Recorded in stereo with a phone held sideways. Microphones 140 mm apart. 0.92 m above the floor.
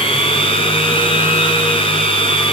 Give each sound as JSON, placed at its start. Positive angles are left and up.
{"t": 0.0, "sound": "a machine running", "side_deg": 45, "distance_m": 1.6}